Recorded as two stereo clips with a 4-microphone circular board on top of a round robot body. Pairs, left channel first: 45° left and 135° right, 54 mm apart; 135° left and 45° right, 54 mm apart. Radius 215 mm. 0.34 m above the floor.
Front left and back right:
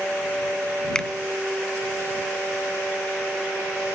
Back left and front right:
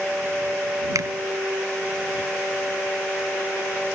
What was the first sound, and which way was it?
A finger snap, 35° right.